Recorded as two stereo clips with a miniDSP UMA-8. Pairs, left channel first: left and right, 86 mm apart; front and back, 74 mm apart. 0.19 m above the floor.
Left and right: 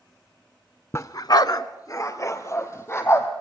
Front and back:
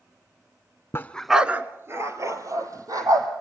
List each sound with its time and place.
0.9 s a dog barking: 40° left, 0.7 m; by 3.3 s 145° left, 3.5 m